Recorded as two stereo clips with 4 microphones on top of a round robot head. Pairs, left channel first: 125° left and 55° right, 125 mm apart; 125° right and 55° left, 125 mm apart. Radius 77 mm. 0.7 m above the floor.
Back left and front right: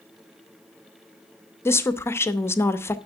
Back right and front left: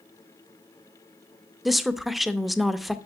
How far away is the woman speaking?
About 0.6 m.